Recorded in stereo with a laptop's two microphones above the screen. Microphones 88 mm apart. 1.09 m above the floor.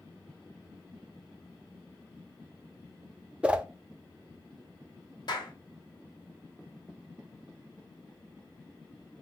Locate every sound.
3.4 s a whoosh: 15° right (ahead or behind), 0.5 m
5.3 s a clap: 55° left (ahead or behind), 1.4 m